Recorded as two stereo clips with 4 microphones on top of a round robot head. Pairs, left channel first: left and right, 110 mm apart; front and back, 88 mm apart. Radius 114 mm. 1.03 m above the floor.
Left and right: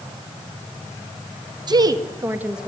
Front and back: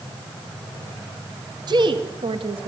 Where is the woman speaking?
140° right, 1.9 m; by 2.7 s straight behind, 1.4 m.